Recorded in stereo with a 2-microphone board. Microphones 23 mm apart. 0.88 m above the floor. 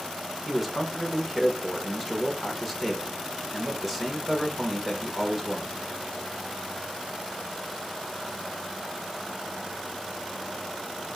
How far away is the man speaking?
About 1.3 m.